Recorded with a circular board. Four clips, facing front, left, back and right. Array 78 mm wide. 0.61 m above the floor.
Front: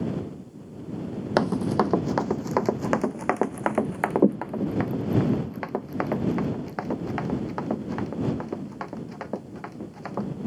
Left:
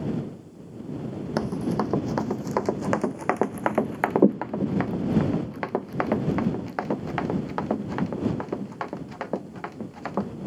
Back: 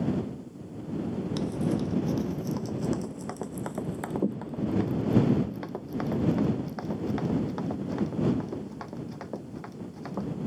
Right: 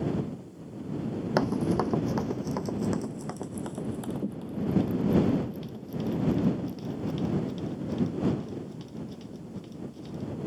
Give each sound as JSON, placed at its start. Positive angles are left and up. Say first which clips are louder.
{"t": 1.4, "sound": "running footsteps", "louder": "even, front 8 dB", "azimuth_deg": -10}